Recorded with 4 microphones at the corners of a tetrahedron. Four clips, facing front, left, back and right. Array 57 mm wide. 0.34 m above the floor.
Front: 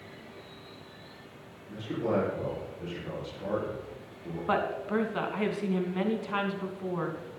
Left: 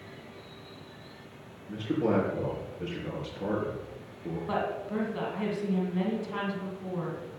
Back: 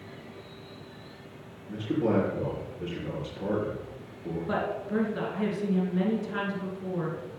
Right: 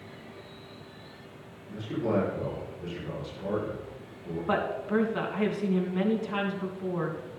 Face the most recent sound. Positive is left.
turn(degrees=-25)